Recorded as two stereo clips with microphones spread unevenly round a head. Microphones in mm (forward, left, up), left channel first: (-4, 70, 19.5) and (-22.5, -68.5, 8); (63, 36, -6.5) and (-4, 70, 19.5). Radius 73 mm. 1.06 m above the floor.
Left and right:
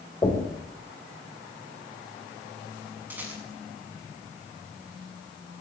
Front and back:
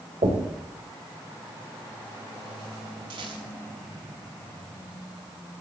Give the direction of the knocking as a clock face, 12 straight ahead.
7 o'clock.